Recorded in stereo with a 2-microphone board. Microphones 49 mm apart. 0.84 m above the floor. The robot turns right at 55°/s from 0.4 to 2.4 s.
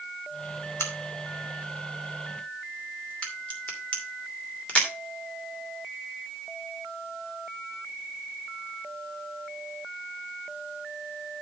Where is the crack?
65° left (ahead or behind), 2.5 m; by 4.9 s 25° left (ahead or behind), 2.5 m.